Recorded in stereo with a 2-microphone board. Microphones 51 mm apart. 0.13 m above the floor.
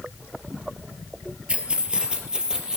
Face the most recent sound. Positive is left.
turn(degrees=-15)  # may be behind; listen again after turning